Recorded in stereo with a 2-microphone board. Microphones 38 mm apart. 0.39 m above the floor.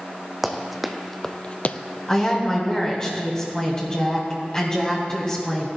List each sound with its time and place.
0.4 s running footsteps: 10° right (ahead or behind), 1.2 m; by 1.8 s 45° left (ahead or behind), 0.5 m
2.1 s a woman speaking: 20° left (ahead or behind), 2.5 m